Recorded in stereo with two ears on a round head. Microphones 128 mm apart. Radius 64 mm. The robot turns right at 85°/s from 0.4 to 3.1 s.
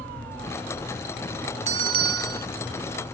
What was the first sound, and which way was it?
A bell, 130° right.